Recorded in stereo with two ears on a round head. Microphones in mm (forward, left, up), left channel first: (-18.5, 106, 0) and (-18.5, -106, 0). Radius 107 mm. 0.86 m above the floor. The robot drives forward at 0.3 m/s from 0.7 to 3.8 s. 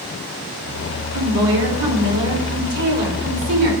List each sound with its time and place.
1.1 s a woman speaking: 80° right, 2.5 m; by 3.7 s 65° right (ahead or behind), 3 m